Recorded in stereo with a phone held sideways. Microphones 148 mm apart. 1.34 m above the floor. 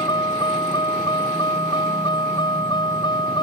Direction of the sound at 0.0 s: 30° left (ahead or behind).